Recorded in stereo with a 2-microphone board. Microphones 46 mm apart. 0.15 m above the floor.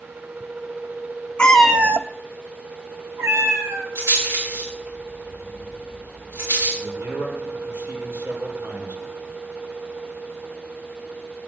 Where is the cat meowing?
25° left (ahead or behind), 0.7 m; by 3.9 s 75° right (ahead or behind), 3.5 m.